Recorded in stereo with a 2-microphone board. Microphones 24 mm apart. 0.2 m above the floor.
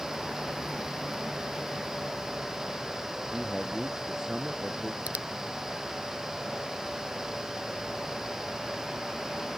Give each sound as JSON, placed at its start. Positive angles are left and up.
{"t": 3.3, "sound": "a man speaking", "side_deg": -25}
{"t": 5.1, "sound": "a finger snap", "side_deg": -75}